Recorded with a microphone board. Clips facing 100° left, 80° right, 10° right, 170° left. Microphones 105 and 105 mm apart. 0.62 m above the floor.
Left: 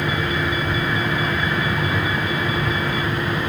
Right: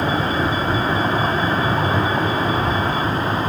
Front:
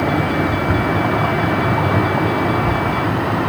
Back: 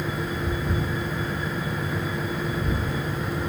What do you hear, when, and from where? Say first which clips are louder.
0.0 s a vehicle: right 3 dB, front 11 dB; 25° right